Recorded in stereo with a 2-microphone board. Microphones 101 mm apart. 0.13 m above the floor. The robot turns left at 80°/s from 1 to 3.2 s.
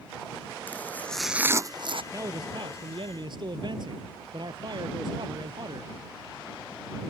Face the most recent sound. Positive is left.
turn(degrees=-120)